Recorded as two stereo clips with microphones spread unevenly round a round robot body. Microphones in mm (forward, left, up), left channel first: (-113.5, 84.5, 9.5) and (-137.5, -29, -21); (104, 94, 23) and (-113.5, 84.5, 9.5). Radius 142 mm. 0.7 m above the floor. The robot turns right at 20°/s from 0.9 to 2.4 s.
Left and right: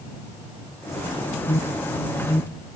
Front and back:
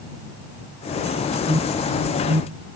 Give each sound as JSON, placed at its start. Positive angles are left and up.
{"t": 1.5, "sound": "an alarm", "azimuth_deg": 120}